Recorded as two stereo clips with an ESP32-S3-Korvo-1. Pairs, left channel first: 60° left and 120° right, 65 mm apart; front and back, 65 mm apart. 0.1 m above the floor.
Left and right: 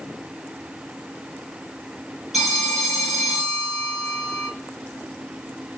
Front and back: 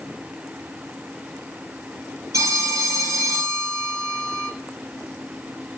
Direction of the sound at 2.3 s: 155° left.